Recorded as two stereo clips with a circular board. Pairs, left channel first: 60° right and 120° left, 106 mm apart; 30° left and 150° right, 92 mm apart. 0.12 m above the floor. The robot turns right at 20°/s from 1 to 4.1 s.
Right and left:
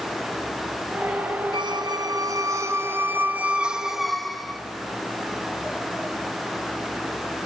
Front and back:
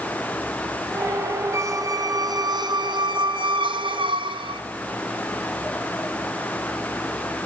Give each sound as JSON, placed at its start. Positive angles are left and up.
{"t": 1.5, "sound": "a squeak", "azimuth_deg": 160, "distance_m": 0.5}